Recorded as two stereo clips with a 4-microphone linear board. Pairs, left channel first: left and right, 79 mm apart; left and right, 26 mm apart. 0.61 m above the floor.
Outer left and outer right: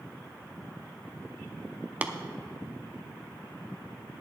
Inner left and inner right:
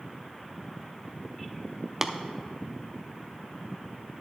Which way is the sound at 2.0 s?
20° right (ahead or behind).